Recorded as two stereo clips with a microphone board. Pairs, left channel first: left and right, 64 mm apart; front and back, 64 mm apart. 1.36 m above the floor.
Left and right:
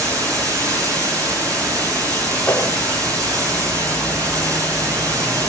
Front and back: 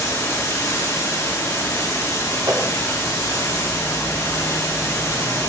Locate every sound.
0.0 s running water: 55° right, 9 m
2.5 s a whoosh: 160° left, 4 m